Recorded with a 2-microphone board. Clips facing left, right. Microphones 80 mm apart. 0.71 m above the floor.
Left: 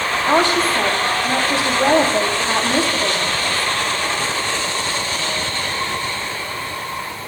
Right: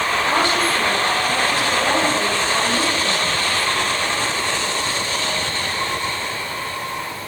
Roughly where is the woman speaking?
Left.